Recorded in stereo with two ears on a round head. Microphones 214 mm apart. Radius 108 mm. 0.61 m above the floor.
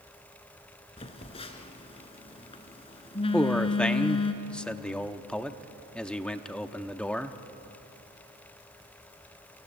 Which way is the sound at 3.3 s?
5° left (ahead or behind).